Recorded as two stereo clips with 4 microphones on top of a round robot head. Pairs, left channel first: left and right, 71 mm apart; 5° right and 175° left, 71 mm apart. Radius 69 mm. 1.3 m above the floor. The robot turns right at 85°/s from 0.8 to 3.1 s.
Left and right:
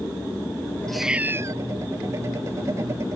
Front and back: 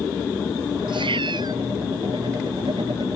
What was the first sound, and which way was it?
A cat meowing, 170° left.